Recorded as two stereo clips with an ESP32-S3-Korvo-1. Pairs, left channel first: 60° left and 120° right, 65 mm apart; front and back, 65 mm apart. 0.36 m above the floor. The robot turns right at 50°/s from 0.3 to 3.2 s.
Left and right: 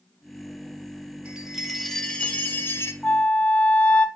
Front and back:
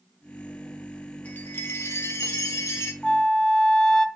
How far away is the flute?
About 0.6 m.